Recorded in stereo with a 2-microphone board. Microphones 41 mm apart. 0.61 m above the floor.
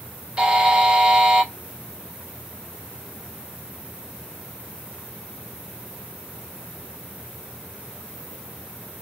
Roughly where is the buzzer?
Right.